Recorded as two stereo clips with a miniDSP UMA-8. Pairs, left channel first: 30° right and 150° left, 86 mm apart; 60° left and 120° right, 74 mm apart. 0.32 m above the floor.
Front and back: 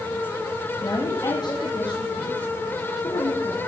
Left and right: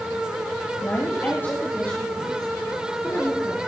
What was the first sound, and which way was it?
A woman speaking, 5° left.